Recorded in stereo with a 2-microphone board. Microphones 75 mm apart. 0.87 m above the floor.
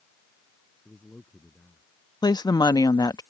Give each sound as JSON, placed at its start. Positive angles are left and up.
{"t": 0.8, "sound": "a man speaking", "side_deg": 15}
{"t": 2.2, "sound": "a woman speaking", "side_deg": 65}